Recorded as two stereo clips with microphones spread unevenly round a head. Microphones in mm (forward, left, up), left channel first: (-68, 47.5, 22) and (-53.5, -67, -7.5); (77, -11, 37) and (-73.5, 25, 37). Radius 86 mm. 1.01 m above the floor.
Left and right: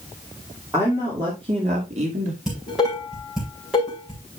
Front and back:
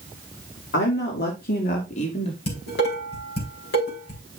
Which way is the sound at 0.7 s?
10° right.